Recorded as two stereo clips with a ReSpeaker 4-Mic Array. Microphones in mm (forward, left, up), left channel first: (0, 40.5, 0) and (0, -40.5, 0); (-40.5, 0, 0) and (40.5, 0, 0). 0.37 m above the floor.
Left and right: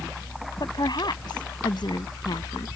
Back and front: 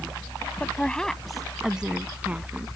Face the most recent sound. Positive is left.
turn(degrees=65)